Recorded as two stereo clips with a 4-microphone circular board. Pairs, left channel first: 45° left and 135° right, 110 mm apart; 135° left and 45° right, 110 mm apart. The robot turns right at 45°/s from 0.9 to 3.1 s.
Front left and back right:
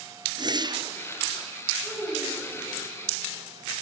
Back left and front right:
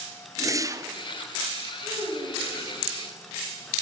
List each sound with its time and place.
0.4 s a whoosh: 95° right, 0.5 m
1.8 s a child speaking: 80° right, 3 m; by 2.7 s 40° right, 3 m